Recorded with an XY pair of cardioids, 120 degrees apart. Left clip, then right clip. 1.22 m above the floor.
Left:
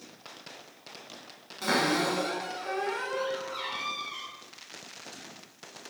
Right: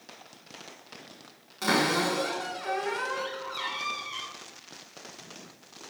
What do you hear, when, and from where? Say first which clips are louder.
1.6 s a cupboard door: right 1 dB; 25° right, 1.3 m